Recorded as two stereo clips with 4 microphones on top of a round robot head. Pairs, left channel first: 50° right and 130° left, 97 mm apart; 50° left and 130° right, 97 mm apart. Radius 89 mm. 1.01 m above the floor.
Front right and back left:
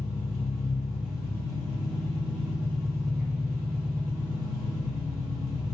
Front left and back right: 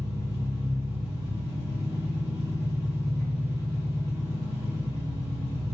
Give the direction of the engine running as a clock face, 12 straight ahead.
5 o'clock.